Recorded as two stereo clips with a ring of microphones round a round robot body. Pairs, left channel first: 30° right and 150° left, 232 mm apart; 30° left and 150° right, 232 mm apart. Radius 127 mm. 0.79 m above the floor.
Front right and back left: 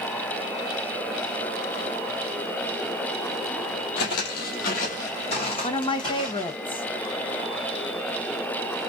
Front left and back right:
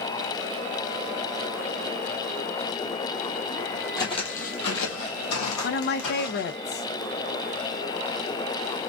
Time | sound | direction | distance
4.0 | footsteps | 40° right | 0.9 m
5.6 | a woman speaking | 30° left | 0.6 m